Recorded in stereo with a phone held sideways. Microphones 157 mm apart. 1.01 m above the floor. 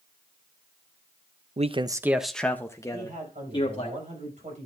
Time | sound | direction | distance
1.6 | a man speaking | 45° right (ahead or behind) | 0.6 m
2.9 | a man speaking | 50° right (ahead or behind) | 6 m